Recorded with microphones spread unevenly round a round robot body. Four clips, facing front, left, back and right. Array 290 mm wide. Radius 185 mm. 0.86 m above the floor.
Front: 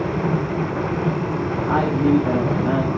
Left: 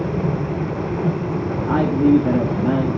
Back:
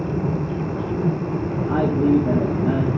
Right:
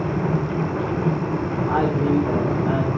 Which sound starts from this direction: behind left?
A man speaking, at 1.7 s.